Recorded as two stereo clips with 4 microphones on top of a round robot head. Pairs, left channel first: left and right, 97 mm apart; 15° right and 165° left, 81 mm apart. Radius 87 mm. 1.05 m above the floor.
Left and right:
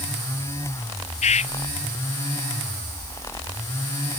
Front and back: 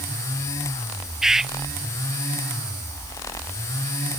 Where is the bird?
80° left.